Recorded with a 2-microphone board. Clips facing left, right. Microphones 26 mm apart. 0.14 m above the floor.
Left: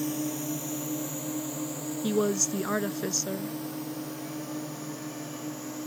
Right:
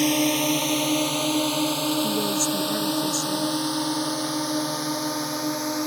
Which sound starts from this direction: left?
A woman speaking, at 2.0 s.